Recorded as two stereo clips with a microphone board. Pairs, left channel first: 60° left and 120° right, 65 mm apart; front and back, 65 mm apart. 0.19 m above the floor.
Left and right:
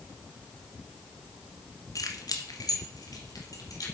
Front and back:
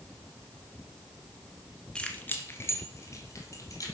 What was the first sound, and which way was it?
Keys jangling, 75° left.